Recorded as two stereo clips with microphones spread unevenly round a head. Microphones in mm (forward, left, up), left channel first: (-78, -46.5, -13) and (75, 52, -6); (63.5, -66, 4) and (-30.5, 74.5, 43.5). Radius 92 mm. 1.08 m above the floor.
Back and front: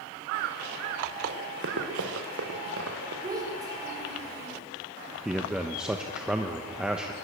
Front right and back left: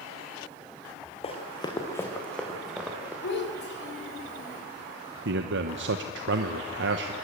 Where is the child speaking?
40° right, 4 m.